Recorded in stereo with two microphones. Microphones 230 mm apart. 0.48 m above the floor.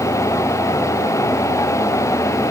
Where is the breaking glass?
I don't hear breaking glass.